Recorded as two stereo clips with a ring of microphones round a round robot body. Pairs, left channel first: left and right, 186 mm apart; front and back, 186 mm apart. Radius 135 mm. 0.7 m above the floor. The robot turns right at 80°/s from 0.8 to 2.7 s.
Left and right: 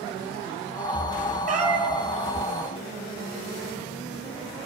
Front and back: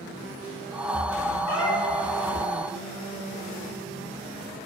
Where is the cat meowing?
50° right, 1.9 m; by 2.0 s straight ahead, 1.9 m.